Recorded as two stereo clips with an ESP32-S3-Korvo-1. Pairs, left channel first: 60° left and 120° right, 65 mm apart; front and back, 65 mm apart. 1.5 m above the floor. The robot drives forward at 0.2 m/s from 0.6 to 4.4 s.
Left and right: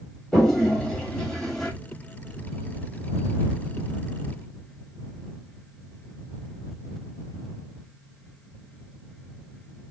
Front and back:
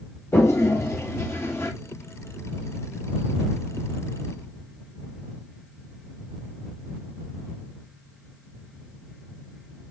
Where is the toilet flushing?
15° right, 1.3 m; by 1.7 s 20° right, 1.2 m.